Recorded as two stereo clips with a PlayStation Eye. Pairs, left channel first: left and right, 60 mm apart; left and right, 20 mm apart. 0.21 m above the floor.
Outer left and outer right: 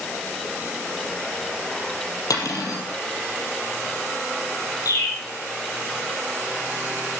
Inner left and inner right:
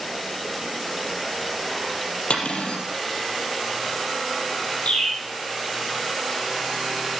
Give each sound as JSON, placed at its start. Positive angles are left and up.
{"t": 2.3, "sound": "cutlery clinking", "side_deg": 80, "distance_m": 4.0}
{"t": 4.8, "sound": "a bird", "side_deg": 80, "distance_m": 8.5}